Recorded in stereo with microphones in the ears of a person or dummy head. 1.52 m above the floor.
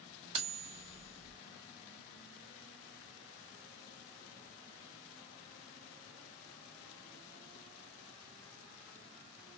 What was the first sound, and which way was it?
Cutlery clinking, 35° right (ahead or behind).